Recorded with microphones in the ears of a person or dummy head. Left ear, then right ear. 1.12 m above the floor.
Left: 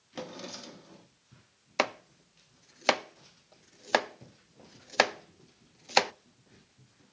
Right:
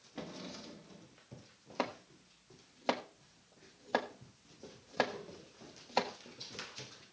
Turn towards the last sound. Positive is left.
turn(degrees=70)  # may be behind; listen again after turning